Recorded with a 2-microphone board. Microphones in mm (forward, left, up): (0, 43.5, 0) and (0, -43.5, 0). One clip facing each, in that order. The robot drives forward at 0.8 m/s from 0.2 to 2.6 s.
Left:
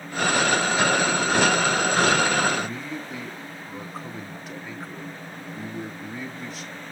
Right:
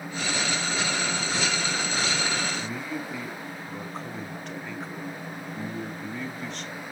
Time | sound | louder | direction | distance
2.5 | a man speaking | left 2 dB | 5° left (ahead or behind) | 0.9 m